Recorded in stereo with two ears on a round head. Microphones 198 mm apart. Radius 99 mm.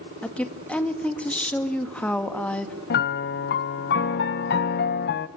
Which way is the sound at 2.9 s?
50° left (ahead or behind).